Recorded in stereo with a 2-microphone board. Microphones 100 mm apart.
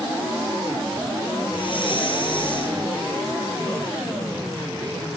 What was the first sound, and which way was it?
Breathing, 60° left (ahead or behind).